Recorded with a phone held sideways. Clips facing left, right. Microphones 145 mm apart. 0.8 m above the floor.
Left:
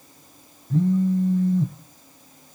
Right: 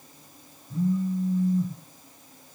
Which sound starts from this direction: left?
A phone buzzing, at 0.7 s.